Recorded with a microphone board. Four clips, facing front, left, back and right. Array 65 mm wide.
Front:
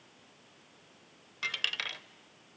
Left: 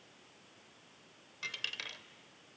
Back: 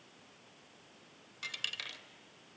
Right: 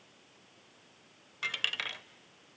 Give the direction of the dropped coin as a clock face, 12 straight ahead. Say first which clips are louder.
Right 7 dB, front 7 dB; 2 o'clock.